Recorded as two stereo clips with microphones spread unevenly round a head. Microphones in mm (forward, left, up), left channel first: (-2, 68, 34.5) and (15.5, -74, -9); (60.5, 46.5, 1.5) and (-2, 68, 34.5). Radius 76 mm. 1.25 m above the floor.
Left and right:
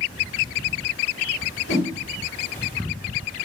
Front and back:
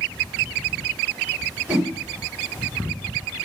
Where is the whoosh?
90° left, 3.5 m.